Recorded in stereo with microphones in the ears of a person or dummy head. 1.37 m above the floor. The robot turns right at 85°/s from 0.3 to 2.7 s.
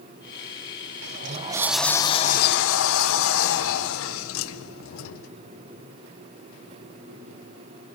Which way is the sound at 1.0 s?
65° right.